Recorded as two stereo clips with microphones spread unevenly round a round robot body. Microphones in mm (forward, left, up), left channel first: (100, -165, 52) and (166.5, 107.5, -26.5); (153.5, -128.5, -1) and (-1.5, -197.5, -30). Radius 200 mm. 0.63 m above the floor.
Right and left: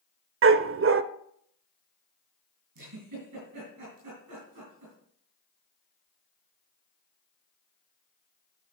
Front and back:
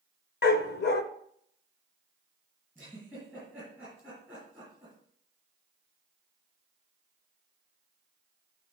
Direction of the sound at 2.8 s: 120° left.